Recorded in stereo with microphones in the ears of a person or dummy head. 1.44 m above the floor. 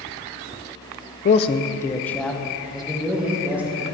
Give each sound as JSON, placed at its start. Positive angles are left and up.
{"t": 1.2, "sound": "a man speaking", "side_deg": 40, "distance_m": 0.6}